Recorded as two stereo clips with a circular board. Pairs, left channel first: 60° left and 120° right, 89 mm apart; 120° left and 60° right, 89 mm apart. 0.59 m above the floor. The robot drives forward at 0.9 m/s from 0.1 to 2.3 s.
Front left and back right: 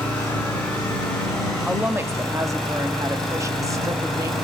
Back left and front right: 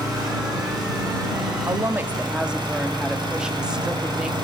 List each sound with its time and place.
0.0 s an engine running: 15° right, 5 m; by 4.5 s 25° right, 3.5 m
1.7 s a woman speaking: 50° right, 0.7 m; by 4.3 s 135° right, 0.7 m